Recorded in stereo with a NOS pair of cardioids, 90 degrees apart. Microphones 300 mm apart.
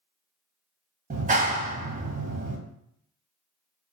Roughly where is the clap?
Ahead right.